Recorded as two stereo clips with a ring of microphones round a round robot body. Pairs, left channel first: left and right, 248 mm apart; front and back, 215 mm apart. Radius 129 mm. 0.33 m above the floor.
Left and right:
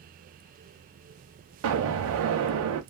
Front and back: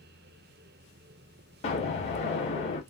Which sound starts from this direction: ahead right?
An explosion, at 1.6 s.